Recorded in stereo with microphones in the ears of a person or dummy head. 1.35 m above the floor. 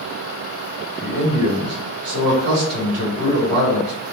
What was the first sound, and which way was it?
A man speaking, 65° right (ahead or behind).